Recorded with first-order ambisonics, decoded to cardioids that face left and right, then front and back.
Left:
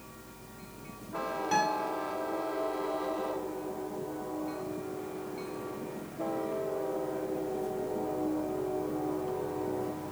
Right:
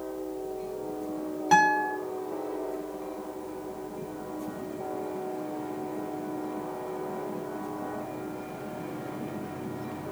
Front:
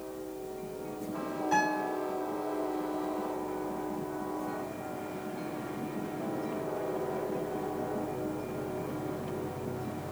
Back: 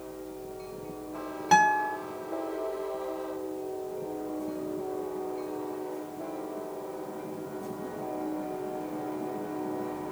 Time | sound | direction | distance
1.5 | a guitar | 145° right | 2 m